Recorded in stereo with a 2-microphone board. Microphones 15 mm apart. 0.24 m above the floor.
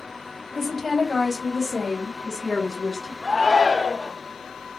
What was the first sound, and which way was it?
A woman speaking, 25° left (ahead or behind).